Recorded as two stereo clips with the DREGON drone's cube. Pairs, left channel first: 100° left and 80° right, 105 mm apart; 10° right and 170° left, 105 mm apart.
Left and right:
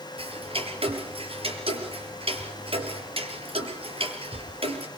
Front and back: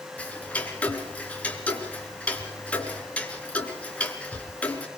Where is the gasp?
I don't hear a gasp.